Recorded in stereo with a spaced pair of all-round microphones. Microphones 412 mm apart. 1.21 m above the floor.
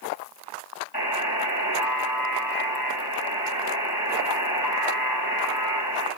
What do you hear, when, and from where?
0.9 s a buzzer: 55° left (ahead or behind), 7 m